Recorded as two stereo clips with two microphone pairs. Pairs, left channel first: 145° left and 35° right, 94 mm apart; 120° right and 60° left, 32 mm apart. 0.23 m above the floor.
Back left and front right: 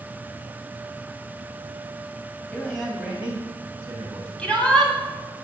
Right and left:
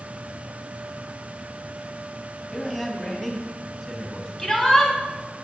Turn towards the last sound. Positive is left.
turn(degrees=-150)